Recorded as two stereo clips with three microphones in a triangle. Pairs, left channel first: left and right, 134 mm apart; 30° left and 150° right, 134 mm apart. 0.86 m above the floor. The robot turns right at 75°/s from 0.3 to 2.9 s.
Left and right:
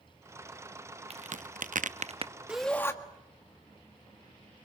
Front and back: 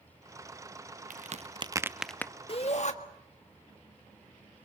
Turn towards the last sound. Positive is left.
turn(degrees=20)